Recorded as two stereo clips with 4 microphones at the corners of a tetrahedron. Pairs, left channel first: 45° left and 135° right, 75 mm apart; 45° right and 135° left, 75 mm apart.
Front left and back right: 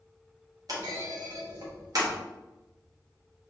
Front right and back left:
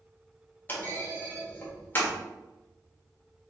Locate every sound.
0.7 s a clunk: 105° right, 1.3 m